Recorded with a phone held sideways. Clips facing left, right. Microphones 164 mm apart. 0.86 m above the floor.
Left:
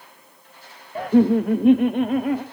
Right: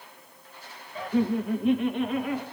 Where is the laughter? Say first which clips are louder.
Left 9 dB; 55° left (ahead or behind), 0.7 m; by 2.4 s 45° left (ahead or behind), 1.7 m.